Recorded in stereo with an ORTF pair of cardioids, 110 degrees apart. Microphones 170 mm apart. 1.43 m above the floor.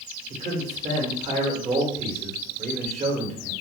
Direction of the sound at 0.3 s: 45° right.